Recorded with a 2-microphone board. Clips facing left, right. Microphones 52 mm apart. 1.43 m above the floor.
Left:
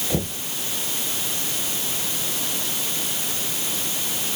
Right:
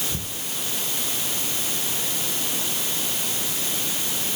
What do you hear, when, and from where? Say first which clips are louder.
0.1 s knocking: left 7 dB; 80° left